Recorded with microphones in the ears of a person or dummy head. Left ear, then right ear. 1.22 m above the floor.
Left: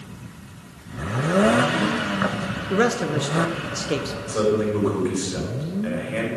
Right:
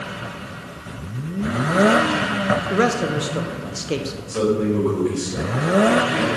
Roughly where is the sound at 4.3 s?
Left.